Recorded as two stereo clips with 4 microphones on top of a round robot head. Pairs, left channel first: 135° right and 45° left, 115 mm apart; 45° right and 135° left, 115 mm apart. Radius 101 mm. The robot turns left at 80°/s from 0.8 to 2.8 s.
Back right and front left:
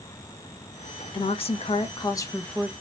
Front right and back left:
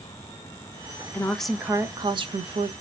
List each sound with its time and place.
1.1 s a woman speaking: 105° right, 0.6 m; by 2.7 s 125° left, 0.6 m